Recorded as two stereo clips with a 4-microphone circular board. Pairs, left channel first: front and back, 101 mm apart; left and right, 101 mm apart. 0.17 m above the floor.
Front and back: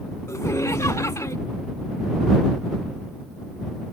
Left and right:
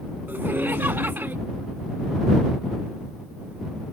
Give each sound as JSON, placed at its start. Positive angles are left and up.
{"t": 0.3, "sound": "laughter", "azimuth_deg": -35}